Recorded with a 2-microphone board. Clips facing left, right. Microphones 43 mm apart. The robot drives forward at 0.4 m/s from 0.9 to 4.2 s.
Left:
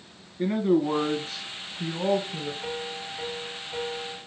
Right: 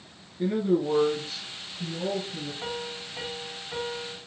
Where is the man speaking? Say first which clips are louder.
Left 2 dB; 45° left (ahead or behind), 2 m; by 2.5 s 55° left (ahead or behind), 1.9 m.